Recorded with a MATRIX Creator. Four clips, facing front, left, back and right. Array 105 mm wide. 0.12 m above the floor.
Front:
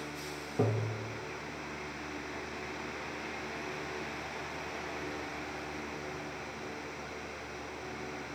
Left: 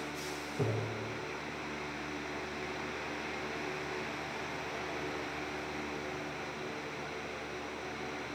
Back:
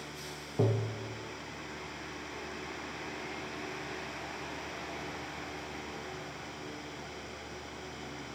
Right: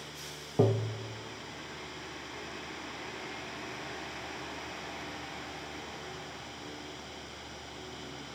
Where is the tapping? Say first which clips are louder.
Right 8 dB, back 1 dB; 90° right, 0.8 m.